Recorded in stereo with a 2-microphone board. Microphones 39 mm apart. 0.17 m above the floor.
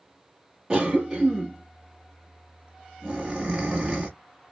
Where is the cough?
20° right (ahead or behind), 1.2 m.